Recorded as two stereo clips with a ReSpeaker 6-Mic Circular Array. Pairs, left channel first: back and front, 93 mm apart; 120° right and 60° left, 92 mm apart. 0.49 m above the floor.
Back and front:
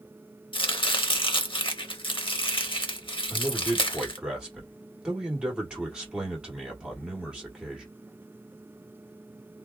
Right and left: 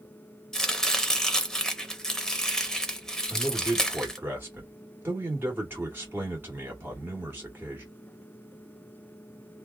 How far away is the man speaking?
About 1.2 m.